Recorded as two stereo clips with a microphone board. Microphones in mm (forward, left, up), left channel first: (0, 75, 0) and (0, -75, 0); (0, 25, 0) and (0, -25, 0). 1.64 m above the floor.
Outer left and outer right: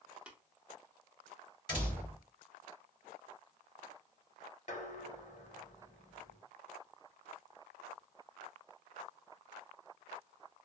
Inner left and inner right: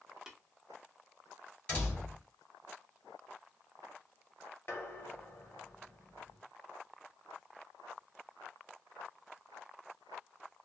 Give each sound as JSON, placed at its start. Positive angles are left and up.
{"t": 0.3, "sound": "tapping", "side_deg": -5, "distance_m": 0.7}
{"t": 1.7, "sound": "a door slam", "side_deg": 25, "distance_m": 2.5}
{"t": 4.7, "sound": "dishes clattering", "side_deg": 50, "distance_m": 1.0}